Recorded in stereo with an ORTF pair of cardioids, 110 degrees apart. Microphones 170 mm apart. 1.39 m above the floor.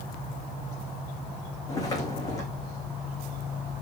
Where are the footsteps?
20° left, 6.5 m.